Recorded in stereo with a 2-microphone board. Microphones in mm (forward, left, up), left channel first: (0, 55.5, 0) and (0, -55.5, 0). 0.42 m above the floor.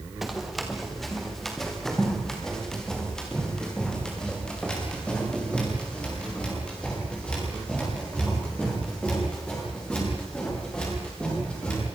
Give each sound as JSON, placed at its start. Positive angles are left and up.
{"t": 0.2, "sound": "running footsteps", "side_deg": 0, "distance_m": 4.0}